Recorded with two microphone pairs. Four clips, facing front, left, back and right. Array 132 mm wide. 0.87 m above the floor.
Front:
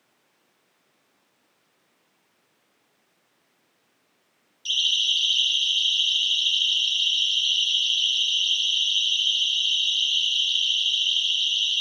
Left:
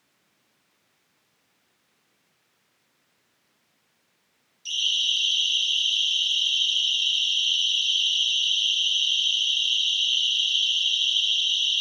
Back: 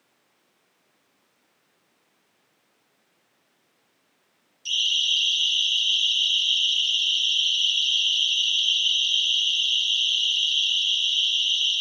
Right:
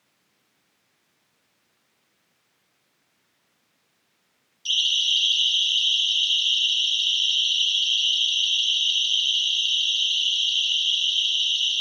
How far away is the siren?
About 7.5 m.